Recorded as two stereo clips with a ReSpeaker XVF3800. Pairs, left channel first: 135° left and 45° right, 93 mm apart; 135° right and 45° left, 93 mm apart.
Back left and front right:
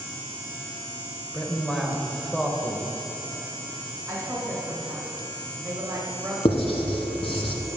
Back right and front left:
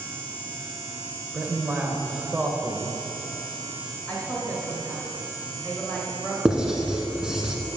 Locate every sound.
1.3 s a man speaking: 55° left, 0.9 m
4.1 s a woman speaking: 75° right, 1.6 m
6.5 s writing: 125° left, 1.1 m